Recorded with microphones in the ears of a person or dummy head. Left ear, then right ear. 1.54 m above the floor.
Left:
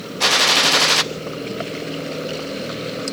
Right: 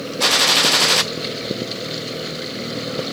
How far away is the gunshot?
About 0.6 m.